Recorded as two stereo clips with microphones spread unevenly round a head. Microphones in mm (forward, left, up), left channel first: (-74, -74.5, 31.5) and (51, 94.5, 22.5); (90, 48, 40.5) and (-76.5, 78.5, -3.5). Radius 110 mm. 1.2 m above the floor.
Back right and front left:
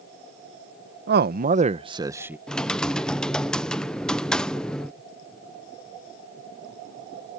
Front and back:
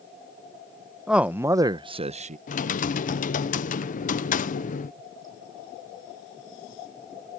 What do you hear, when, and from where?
1.1 s a man speaking: 90° left; by 2.4 s 135° left
2.5 s typing on a keyboard: 40° right